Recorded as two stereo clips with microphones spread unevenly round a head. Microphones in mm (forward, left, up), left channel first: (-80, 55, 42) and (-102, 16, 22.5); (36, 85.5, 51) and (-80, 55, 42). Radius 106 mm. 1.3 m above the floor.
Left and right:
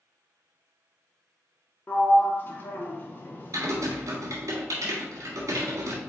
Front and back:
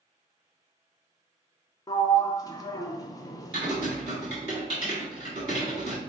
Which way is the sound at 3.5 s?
100° right.